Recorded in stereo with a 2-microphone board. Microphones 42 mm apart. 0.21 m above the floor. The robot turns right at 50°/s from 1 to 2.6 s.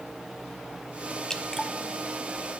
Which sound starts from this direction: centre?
Dripping, at 1.3 s.